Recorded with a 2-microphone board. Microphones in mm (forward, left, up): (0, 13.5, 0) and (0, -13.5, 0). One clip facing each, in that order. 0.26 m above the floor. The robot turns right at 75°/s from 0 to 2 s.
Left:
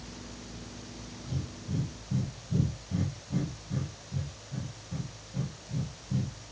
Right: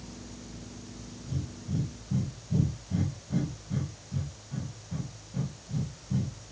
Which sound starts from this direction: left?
Breathing, at 1.3 s.